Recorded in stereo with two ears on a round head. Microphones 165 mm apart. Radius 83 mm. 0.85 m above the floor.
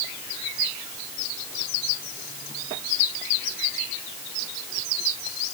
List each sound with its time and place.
Only background noise.